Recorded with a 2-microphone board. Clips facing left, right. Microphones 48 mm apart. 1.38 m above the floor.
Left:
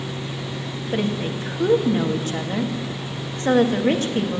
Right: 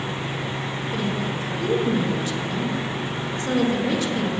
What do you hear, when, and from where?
0.9 s a woman speaking: 40° left (ahead or behind), 2.0 m